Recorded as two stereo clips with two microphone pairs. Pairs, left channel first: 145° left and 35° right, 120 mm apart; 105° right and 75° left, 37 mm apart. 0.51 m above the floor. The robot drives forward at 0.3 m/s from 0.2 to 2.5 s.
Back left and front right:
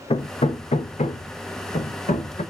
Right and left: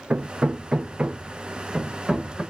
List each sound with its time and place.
0.1 s hammering: 110° left, 0.5 m; by 2.4 s 150° left, 1.0 m